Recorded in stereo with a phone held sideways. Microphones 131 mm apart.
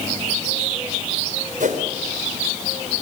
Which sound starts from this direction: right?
A whoosh, at 1.6 s.